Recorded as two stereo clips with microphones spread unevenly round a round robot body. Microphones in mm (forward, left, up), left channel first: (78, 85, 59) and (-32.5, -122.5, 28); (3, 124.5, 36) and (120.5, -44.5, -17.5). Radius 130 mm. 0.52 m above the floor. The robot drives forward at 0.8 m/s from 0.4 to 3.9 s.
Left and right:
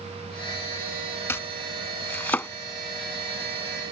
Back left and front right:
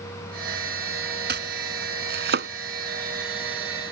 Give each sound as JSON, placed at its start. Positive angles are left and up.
{"t": 1.3, "sound": "chopping", "azimuth_deg": -20}